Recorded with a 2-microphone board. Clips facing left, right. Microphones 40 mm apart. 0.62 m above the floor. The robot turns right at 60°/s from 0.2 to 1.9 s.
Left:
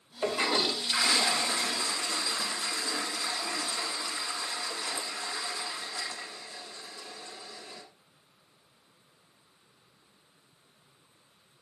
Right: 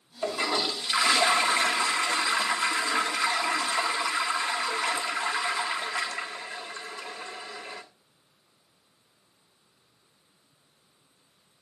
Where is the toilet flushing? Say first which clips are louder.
Even; 150° left, 2.5 m; by 7.8 s 105° right, 2.5 m.